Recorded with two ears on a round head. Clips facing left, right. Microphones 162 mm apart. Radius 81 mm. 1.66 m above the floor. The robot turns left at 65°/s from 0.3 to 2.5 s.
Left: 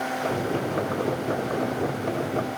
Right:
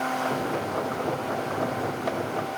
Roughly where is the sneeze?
I don't hear a sneeze.